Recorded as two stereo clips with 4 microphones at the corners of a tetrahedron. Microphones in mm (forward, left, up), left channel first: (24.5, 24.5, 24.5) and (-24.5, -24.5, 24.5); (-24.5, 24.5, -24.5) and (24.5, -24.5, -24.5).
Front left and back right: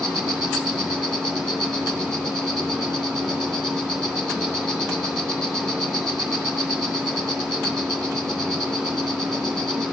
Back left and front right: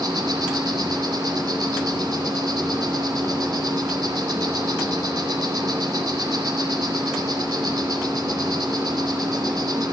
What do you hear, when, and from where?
0.0 s an insect: 40° right, 2.5 m